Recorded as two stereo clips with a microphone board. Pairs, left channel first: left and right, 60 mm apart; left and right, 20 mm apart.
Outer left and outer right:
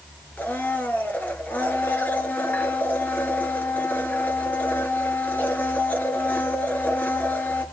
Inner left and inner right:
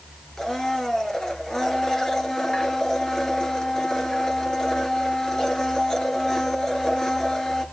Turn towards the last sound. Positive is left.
turn(degrees=30)  # may be behind; listen again after turning